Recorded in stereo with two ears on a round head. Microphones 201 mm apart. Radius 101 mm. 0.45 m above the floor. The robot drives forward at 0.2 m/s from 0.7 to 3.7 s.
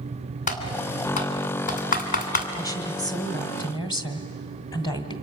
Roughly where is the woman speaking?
Centre.